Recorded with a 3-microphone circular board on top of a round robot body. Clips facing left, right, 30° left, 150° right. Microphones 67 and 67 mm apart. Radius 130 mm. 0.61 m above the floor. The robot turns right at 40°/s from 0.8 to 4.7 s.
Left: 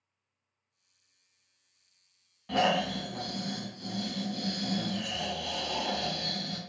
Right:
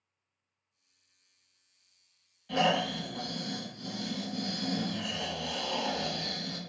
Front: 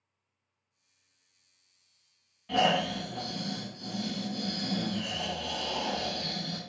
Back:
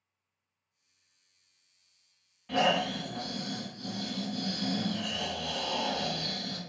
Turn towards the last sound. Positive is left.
turn(degrees=-150)